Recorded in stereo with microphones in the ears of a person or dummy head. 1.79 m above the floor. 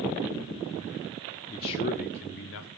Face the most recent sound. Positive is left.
turn(degrees=65)  # may be behind; listen again after turning